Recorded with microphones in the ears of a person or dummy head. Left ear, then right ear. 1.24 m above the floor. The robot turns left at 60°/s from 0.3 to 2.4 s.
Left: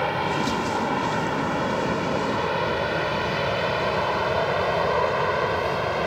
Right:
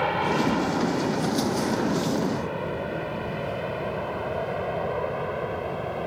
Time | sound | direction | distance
0.0 | an aircraft | centre (ahead or behind) | ?